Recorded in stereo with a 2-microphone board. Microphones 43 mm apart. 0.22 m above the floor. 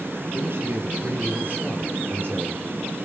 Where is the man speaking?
60° right (ahead or behind), 5.5 m.